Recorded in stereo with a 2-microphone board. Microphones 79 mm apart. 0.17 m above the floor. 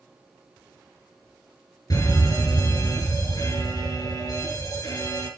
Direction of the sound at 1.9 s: 50° left (ahead or behind).